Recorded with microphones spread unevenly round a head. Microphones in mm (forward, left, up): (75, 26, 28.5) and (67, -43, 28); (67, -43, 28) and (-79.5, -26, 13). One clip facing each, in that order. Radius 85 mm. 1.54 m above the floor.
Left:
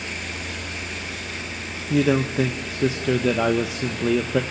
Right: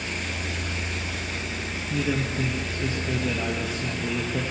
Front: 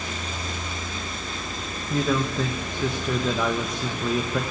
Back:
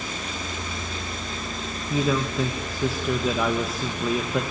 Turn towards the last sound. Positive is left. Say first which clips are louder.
# left 8 dB, even
turn(degrees=85)